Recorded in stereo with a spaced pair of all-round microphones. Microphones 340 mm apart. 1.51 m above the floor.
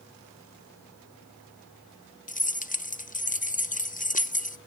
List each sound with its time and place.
2.3 s keys jangling: 25° left (ahead or behind), 0.8 m